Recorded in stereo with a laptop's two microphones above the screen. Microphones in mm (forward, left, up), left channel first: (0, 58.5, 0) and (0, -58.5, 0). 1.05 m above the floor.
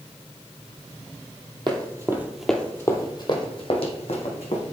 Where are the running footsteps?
40° right (ahead or behind), 1.3 m; by 4.6 s 60° left (ahead or behind), 3 m.